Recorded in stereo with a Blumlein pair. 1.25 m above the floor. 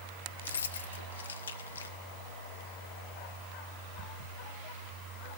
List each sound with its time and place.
0.4 s keys jangling: 70° left, 0.8 m